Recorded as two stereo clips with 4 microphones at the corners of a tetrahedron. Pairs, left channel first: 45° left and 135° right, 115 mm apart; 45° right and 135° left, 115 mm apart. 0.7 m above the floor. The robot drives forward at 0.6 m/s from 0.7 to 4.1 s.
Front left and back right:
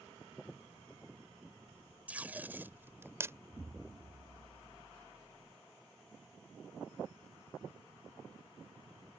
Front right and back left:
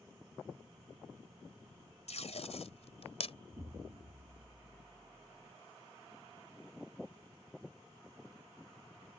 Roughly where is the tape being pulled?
Ahead right.